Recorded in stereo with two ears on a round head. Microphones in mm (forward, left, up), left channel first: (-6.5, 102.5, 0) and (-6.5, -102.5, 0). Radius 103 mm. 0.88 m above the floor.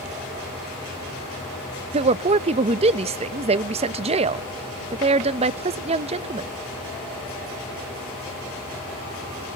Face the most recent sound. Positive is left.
turn(degrees=-25)  # may be behind; listen again after turning